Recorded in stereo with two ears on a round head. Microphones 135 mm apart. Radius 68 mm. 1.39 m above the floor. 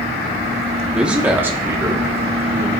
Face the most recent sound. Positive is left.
turn(degrees=-25)  # may be behind; listen again after turning